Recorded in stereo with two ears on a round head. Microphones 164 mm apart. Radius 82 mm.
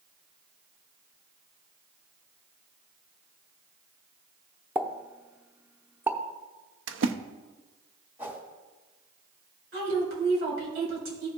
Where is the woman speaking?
70° right (ahead or behind), 4.5 m.